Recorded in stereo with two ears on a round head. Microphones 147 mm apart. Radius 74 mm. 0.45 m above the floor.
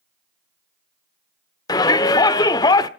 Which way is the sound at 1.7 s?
25° left (ahead or behind).